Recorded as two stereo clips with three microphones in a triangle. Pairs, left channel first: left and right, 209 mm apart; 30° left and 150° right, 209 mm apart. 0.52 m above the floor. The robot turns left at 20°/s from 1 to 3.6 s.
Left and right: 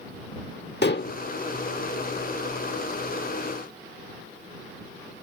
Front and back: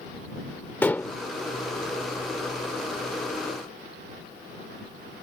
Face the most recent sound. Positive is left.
turn(degrees=55)